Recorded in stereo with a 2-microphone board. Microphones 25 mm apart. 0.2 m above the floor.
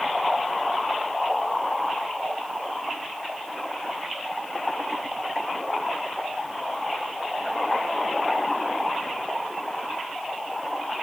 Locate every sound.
Only background noise.